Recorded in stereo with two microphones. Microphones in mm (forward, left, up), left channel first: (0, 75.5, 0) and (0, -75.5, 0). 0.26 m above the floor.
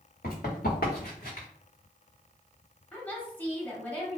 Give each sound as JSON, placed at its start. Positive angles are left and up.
{"t": 0.2, "sound": "running footsteps", "side_deg": 70, "distance_m": 1.6}
{"t": 2.9, "sound": "a woman speaking", "side_deg": 10, "distance_m": 1.0}